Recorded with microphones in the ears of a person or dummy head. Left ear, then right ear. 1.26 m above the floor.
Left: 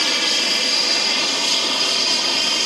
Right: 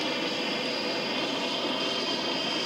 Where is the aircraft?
65° left (ahead or behind).